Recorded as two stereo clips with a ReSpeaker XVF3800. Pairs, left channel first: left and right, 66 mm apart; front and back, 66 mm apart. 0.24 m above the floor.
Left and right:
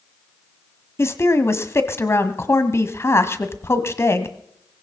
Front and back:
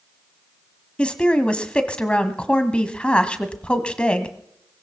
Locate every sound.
1.0 s a woman speaking: 65° left, 1.4 m